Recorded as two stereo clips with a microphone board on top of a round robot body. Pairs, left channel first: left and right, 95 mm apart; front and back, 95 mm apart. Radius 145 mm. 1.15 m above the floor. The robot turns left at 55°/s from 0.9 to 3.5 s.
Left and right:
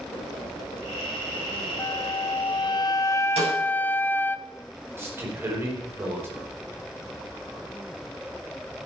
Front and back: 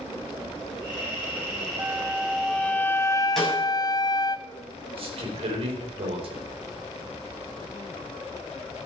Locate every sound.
1.8 s a flute: 120° left, 0.8 m; by 4.4 s 25° left, 0.8 m
3.4 s a snare drum: 85° right, 7 m; by 3.5 s 95° right, 7 m
5.0 s a man speaking: 155° right, 4 m